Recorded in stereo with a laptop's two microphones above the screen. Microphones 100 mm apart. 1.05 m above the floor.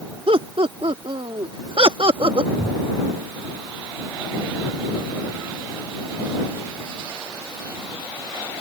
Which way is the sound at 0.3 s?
70° right (ahead or behind).